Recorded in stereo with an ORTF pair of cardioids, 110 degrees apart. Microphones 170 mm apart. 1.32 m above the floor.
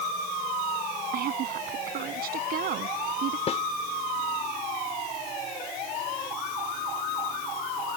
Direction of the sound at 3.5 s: 40° left.